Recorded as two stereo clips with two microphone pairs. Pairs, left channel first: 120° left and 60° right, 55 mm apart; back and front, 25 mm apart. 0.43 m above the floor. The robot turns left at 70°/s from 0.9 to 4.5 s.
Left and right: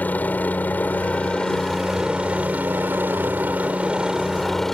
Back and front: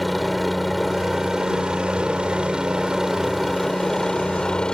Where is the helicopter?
90° left; by 4.8 s 160° right.